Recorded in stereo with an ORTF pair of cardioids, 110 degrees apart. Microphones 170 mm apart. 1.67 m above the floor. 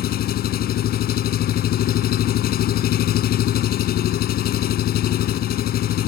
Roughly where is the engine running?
Ahead left.